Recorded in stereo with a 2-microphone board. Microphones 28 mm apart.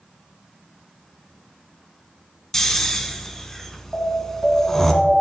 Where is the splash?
No splash in this recording.